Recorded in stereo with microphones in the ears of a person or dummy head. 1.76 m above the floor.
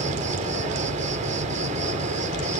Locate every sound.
0.0 s an insect: 45° right (ahead or behind)